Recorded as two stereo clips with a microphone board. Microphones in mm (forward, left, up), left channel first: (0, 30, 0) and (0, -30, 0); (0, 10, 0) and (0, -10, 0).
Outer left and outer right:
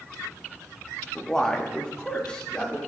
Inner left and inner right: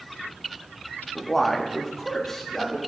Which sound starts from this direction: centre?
A man speaking, at 1.1 s.